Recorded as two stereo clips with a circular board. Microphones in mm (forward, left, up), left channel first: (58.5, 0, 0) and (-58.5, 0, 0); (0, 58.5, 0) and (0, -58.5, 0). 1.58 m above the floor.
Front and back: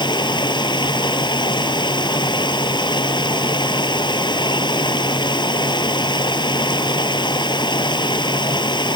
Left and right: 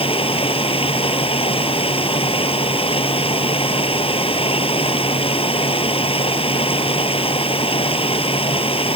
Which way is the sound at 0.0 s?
50° left.